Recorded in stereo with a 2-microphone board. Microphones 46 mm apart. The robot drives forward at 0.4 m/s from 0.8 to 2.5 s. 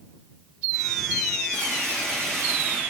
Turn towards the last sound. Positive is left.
turn(degrees=-50)  # may be behind; listen again after turning